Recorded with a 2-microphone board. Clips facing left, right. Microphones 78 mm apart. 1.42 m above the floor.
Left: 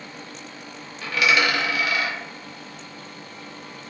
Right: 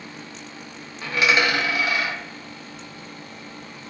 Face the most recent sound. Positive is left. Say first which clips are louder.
# even
turn(degrees=-25)  # may be behind; listen again after turning